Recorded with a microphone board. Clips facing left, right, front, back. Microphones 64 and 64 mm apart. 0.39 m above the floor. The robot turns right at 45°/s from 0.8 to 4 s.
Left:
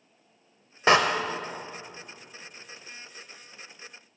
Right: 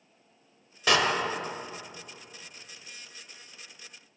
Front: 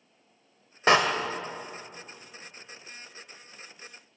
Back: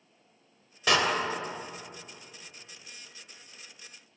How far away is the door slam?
About 0.9 m.